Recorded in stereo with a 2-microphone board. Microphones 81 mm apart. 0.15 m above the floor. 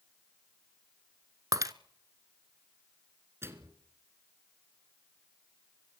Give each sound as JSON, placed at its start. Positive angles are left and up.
{"t": 1.5, "sound": "breaking glass", "side_deg": -50, "distance_m": 0.7}
{"t": 3.4, "sound": "a microwave", "side_deg": -30, "distance_m": 1.7}